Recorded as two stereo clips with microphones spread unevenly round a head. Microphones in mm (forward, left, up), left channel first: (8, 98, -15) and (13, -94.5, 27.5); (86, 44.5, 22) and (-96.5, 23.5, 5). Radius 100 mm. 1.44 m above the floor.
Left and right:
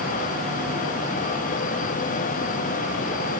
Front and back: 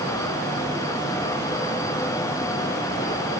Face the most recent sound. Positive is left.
No sound to turn to.